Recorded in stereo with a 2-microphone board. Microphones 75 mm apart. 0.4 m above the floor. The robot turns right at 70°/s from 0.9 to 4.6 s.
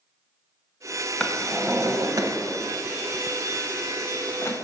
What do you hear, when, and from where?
1.2 s a drawer: 15° left (ahead or behind), 0.9 m; by 4.7 s 40° left (ahead or behind), 0.9 m